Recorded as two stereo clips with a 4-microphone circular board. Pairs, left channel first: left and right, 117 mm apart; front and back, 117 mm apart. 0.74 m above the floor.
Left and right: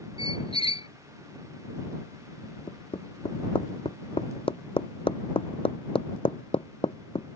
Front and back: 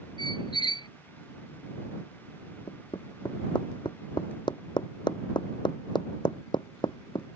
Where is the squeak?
50° left.